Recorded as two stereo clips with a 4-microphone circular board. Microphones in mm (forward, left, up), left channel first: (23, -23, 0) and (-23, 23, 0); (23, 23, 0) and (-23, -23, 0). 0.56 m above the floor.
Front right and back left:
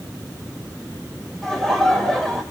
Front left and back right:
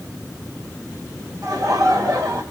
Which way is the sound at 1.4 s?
130° right.